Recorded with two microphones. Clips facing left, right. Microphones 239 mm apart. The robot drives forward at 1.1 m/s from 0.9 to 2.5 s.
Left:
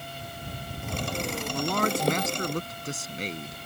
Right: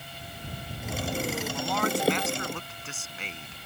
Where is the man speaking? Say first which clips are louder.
Left 4 dB; 55° left (ahead or behind); by 3.6 s 40° left (ahead or behind).